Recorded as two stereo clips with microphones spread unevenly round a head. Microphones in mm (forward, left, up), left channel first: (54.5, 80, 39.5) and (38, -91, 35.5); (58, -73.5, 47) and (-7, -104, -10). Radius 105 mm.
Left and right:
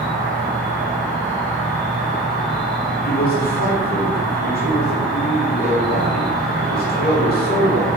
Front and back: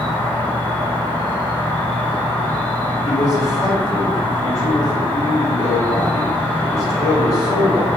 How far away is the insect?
About 1.9 m.